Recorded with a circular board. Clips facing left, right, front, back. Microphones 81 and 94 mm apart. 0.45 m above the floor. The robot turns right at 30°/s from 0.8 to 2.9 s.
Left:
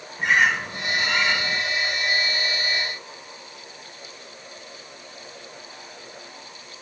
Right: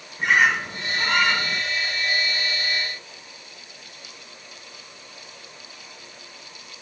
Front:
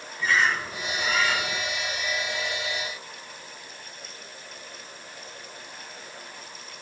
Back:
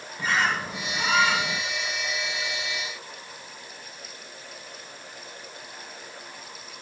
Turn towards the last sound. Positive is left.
turn(degrees=-115)